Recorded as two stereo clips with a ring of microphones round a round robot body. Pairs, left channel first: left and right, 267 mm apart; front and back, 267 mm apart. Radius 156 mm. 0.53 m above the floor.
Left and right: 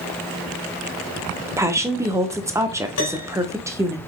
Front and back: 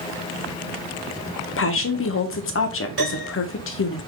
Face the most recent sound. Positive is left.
turn(degrees=125)